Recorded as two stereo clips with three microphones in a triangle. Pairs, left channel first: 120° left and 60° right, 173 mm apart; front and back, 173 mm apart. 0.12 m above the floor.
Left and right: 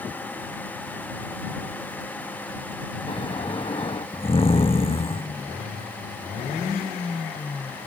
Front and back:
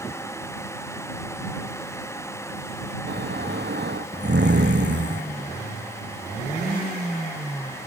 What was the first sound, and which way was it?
Snoring, straight behind.